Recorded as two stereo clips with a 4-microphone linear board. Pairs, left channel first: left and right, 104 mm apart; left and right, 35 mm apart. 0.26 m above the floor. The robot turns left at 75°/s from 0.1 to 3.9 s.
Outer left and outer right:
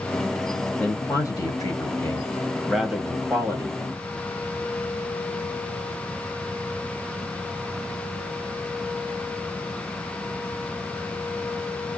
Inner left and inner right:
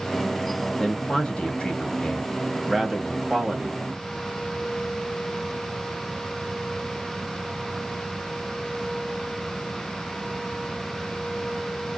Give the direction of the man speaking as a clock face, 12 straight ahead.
7 o'clock.